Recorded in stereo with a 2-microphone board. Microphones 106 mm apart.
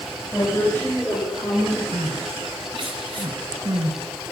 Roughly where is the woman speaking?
Left.